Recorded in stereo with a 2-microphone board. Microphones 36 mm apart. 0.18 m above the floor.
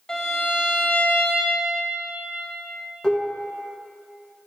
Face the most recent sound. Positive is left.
turn(degrees=25)  # may be behind; listen again after turning